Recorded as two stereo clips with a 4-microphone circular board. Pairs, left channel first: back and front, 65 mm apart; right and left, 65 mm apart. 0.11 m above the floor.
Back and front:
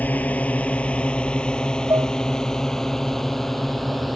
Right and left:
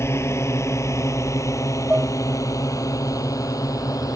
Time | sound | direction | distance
0.0 | a drone | 120° right | ?
1.9 | dishes clattering | 25° left | ?